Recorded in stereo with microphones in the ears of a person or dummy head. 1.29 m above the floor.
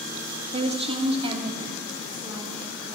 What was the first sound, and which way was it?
A woman speaking, 35° right (ahead or behind).